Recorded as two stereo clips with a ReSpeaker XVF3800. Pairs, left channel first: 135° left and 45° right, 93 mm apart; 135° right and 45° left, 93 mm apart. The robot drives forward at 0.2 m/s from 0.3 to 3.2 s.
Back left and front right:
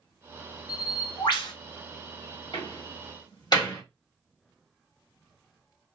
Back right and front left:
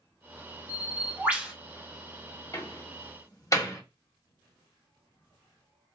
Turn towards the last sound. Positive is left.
turn(degrees=175)